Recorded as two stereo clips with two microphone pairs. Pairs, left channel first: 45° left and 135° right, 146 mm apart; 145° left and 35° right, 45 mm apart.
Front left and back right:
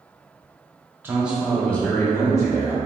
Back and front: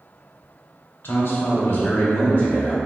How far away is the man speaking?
About 1.0 m.